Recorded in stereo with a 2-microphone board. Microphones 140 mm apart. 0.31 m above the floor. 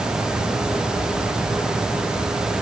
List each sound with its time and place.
Only background noise.